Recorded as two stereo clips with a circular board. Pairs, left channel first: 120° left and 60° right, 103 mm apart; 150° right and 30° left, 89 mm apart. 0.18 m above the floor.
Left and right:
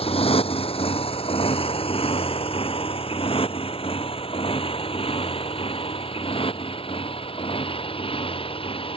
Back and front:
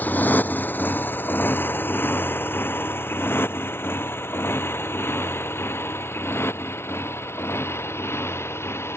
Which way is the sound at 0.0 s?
140° left.